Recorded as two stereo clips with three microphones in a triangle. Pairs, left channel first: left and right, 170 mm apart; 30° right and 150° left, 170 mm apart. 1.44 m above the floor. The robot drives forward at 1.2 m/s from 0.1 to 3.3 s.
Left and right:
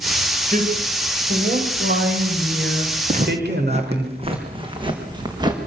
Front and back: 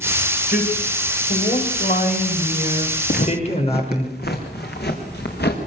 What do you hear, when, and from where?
0.5 s a man speaking: 55° right, 8 m; by 4.1 s 80° right, 6.5 m
3.1 s footsteps: 50° right, 3.5 m; by 5.6 s 25° right, 6 m